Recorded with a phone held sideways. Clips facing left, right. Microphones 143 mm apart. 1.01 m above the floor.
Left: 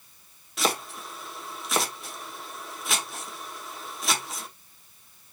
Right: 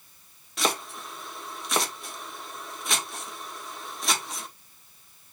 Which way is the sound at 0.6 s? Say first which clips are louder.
Left 1 dB; centre (ahead or behind).